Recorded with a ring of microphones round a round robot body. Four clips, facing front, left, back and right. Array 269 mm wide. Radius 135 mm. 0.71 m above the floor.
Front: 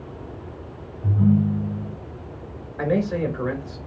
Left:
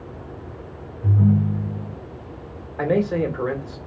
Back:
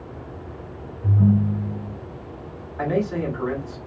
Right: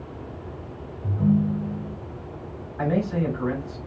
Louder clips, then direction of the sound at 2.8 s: Left 4 dB, front 1 dB; 80° left.